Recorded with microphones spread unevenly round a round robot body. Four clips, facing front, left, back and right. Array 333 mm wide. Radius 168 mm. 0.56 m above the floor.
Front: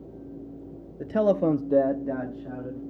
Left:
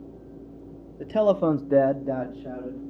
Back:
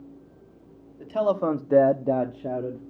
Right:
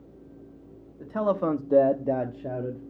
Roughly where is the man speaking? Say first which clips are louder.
Left 5 dB, front 1 dB; ahead left.